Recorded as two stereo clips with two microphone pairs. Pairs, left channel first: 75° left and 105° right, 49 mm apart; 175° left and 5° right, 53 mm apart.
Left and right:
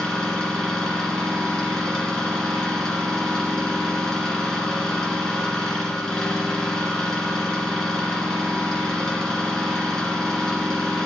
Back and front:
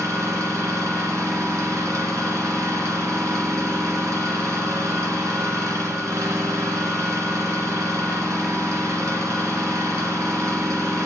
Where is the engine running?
Straight ahead, 3 m.